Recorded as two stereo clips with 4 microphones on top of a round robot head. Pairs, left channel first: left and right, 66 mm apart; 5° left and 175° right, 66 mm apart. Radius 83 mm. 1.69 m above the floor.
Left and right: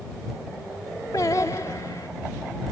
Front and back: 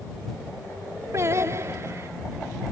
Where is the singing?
145° left.